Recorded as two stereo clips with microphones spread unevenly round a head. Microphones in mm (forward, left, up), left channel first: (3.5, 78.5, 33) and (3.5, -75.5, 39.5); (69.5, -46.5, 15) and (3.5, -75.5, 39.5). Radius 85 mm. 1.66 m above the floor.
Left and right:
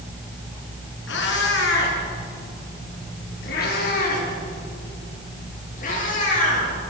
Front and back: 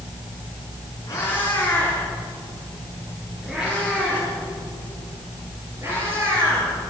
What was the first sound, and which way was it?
A cat meowing, 100° left.